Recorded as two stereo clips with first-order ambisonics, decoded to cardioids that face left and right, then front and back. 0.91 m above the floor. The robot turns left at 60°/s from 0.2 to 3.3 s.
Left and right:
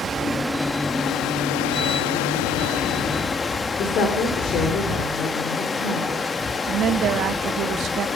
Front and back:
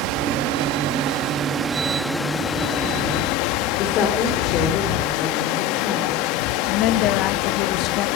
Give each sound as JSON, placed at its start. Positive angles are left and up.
{"t": 0.0, "sound": "running water", "azimuth_deg": -160, "distance_m": 0.9}
{"t": 3.8, "sound": "a woman speaking", "azimuth_deg": 45, "distance_m": 3.0}
{"t": 6.7, "sound": "a woman speaking", "azimuth_deg": -35, "distance_m": 1.1}